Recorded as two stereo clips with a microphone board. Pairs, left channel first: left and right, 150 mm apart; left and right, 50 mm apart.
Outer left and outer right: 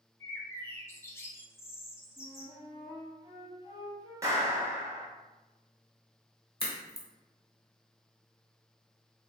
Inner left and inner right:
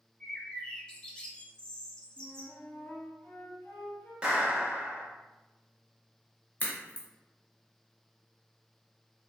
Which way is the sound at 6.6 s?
35° left (ahead or behind).